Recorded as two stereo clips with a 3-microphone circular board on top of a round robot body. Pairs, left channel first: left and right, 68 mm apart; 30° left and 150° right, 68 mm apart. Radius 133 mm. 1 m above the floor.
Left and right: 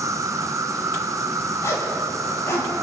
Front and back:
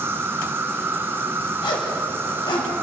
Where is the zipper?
40° left, 4 m.